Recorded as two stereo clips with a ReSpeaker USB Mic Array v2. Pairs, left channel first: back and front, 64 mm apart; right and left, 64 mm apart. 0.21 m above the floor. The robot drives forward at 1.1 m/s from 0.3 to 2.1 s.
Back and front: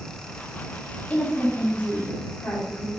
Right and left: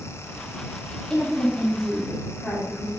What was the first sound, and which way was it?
A woman speaking, 155° right.